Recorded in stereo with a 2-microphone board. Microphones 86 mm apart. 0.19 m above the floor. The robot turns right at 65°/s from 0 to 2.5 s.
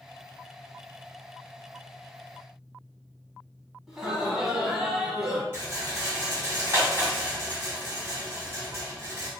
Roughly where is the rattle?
Right.